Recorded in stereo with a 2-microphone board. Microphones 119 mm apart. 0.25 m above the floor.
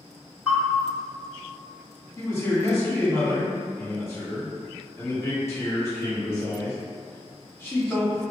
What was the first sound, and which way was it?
A bell, 15° right (ahead or behind).